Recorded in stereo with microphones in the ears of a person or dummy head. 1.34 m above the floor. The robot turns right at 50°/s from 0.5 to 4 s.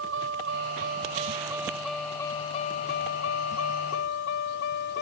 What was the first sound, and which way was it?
A vehicle, 75° right (ahead or behind).